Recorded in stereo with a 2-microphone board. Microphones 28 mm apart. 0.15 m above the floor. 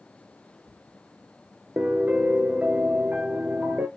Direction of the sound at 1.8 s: 70° right (ahead or behind).